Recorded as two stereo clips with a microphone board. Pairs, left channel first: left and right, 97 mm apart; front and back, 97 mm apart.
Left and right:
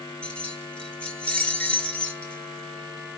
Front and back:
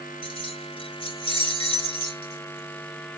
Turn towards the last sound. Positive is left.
turn(degrees=15)